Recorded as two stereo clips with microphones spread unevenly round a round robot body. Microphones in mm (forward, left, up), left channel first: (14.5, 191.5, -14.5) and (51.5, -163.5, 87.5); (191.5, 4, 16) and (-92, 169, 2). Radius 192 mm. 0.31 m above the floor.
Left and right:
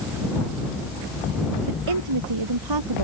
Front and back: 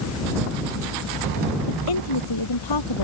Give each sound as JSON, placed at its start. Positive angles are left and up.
{"t": 1.7, "sound": "a woman speaking", "azimuth_deg": -60}